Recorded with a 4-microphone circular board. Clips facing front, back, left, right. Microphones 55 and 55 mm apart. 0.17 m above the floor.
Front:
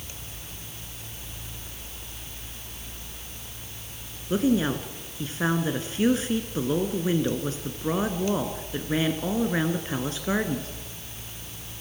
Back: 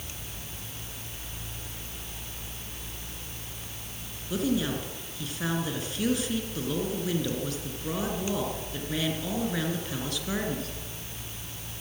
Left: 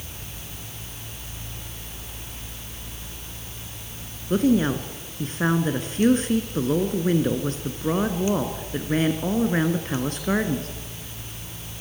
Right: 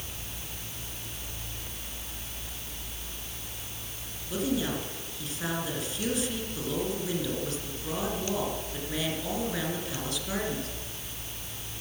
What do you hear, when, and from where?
4.3 s a woman speaking: 55° left, 2.5 m